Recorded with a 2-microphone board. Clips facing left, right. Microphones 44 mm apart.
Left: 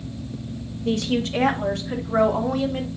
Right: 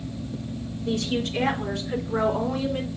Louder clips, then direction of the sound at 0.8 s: Left 3 dB; 70° left (ahead or behind).